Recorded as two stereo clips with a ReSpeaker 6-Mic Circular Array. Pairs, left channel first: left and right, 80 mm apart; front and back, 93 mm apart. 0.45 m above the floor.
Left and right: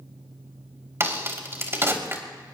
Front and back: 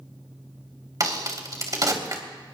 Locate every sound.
1.0 s a crack: 140° right, 2.5 m